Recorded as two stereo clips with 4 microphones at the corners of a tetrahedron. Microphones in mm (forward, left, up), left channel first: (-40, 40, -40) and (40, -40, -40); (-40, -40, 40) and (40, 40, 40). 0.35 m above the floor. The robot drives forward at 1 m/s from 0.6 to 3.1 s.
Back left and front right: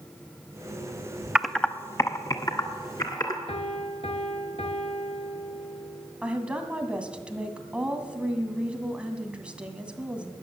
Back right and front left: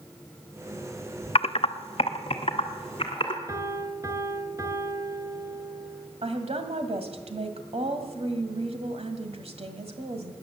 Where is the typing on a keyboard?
125° right, 0.5 m; by 3.4 s 170° right, 2 m.